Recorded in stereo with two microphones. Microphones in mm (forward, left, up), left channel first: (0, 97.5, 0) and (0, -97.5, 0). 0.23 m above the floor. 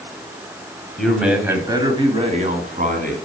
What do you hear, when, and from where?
1.0 s a man speaking: 5° left (ahead or behind), 1.0 m; by 3.1 s 50° right (ahead or behind), 1.7 m